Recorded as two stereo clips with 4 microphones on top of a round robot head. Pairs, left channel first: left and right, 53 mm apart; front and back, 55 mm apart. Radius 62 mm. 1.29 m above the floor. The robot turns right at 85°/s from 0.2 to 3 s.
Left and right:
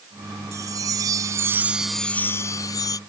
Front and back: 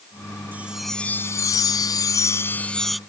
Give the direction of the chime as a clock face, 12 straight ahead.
4 o'clock.